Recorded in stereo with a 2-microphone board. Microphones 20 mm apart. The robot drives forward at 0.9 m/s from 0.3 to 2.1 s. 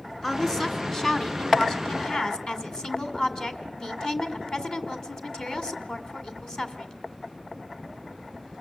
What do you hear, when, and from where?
0.2 s a woman speaking: 25° left (ahead or behind), 3 m; by 6.9 s 40° left (ahead or behind), 1.9 m